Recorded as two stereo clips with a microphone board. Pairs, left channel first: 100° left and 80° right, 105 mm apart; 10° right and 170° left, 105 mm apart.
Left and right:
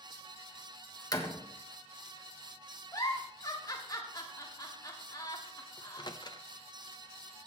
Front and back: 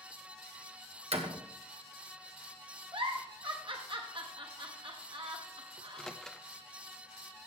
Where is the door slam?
155° left, 1.3 m.